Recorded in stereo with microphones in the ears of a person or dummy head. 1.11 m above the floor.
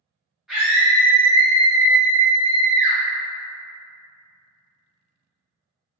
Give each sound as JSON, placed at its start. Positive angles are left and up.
{"t": 0.5, "sound": "a scream", "side_deg": 0, "distance_m": 0.8}